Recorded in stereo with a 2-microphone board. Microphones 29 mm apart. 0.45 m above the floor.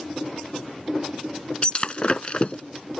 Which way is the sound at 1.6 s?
40° left (ahead or behind).